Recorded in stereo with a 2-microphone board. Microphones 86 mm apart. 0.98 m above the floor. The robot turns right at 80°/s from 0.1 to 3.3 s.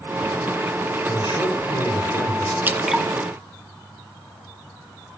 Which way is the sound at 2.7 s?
25° right (ahead or behind).